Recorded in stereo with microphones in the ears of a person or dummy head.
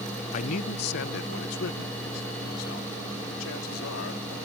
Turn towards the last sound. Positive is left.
turn(degrees=85)